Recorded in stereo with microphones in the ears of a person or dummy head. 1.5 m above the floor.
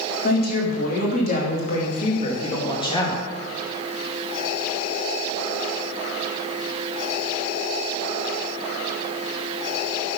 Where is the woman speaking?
60° left (ahead or behind), 3 m; by 3.2 s 30° left (ahead or behind), 2 m.